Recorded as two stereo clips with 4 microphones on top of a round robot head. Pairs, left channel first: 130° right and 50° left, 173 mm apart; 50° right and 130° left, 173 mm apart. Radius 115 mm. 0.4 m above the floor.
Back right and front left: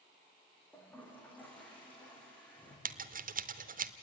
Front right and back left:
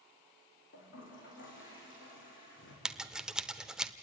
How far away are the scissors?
About 1.1 m.